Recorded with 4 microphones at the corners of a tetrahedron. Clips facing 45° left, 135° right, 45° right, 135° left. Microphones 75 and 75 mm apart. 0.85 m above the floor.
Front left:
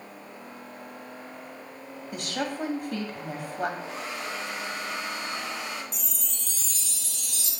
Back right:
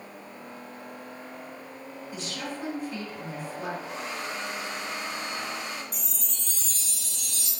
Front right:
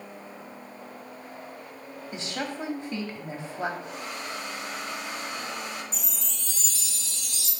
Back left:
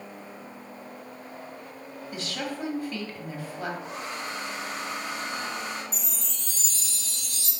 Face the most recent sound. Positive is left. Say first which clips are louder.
# even, even
turn(degrees=-175)